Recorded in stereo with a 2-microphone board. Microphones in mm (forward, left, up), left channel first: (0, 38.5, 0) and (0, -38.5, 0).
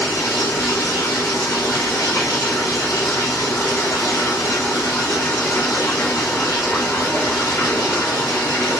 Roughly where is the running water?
Left.